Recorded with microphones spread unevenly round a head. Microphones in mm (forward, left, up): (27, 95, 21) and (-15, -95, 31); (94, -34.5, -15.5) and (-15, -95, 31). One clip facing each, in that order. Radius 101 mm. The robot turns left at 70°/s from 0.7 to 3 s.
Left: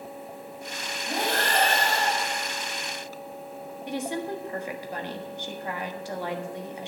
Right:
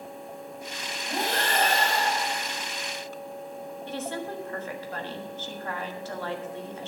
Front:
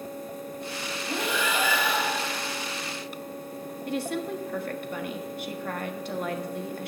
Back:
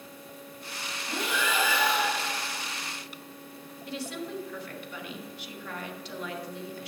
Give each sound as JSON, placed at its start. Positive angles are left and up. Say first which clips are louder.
{"t": 1.1, "sound": "breathing", "louder": "left 1 dB, front 2 dB", "azimuth_deg": 55, "distance_m": 5.5}
{"t": 3.9, "sound": "a woman speaking", "louder": "left 4 dB, front 6 dB", "azimuth_deg": 0, "distance_m": 1.4}